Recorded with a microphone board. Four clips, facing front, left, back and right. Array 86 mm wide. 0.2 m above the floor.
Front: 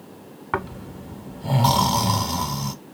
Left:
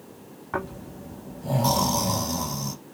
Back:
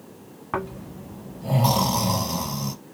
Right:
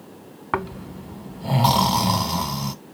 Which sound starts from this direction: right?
Snoring, at 0.5 s.